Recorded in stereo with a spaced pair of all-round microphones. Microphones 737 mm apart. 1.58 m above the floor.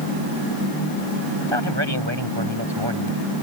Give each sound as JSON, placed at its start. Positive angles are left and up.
{"t": 1.4, "sound": "a man speaking", "side_deg": -35}